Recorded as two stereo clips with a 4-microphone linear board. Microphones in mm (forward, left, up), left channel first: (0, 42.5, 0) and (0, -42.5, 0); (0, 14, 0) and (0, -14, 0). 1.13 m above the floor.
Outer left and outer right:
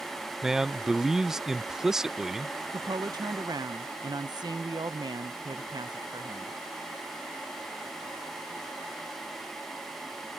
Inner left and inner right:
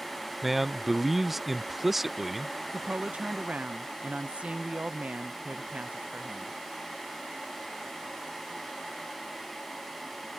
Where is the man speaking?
5° right (ahead or behind).